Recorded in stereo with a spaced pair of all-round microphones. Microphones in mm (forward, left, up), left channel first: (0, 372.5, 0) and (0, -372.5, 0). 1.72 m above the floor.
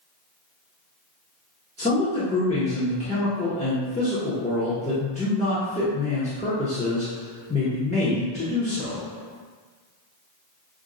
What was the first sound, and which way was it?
A man speaking, 10° left (ahead or behind).